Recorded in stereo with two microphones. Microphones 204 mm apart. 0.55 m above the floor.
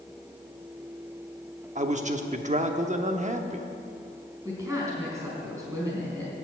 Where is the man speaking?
35° right (ahead or behind), 0.8 m.